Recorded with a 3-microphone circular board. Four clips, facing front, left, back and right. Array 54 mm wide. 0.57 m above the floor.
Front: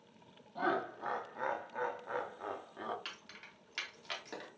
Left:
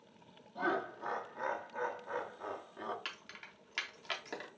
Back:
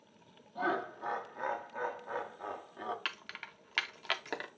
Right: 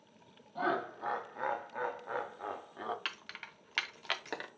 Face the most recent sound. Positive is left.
turn(degrees=-150)